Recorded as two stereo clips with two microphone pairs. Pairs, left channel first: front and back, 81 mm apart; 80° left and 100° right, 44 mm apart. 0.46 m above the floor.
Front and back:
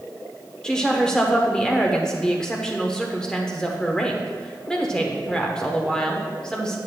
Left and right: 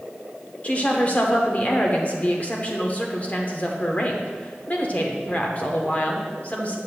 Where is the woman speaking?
70° left, 0.9 m.